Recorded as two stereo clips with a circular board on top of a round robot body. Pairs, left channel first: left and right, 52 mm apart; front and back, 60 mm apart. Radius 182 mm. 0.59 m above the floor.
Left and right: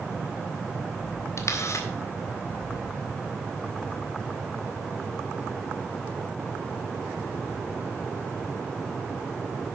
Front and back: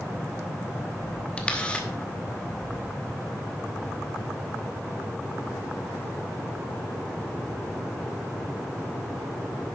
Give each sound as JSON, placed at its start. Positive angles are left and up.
{"t": 1.4, "sound": "a camera shutter", "azimuth_deg": 70, "distance_m": 1.9}